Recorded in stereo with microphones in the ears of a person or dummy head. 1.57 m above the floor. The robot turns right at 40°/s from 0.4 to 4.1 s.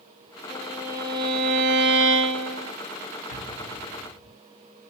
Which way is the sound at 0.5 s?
Straight behind.